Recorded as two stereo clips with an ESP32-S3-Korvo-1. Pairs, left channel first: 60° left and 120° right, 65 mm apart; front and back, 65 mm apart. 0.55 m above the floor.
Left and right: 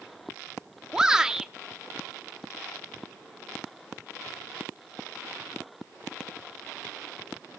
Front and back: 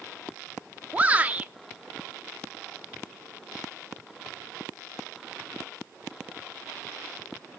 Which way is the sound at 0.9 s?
175° left.